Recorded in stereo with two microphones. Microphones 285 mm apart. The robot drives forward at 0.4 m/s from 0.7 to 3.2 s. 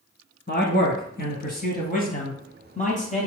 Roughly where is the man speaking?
Left.